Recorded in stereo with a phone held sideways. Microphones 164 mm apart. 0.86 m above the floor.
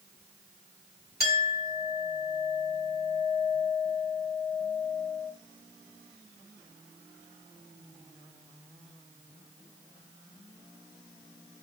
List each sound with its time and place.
1.2 s a clink: 70° right (ahead or behind), 2 m